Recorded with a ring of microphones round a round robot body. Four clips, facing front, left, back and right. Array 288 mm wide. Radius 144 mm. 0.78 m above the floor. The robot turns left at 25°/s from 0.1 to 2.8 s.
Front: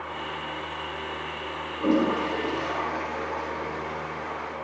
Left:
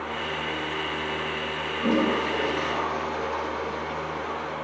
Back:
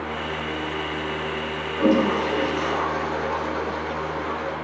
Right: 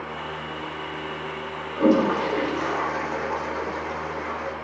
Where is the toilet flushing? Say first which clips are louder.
Right 5 dB, back 4 dB; 115° right, 4 m; by 4.5 s 140° right, 4 m.